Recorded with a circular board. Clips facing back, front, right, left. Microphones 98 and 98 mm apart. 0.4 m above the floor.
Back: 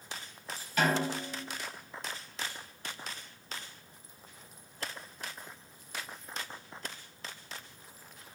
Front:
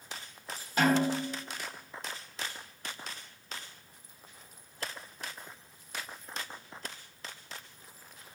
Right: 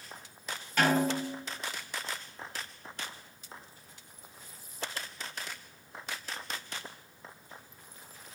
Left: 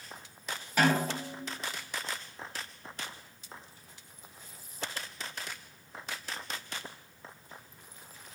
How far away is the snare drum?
About 1.7 m.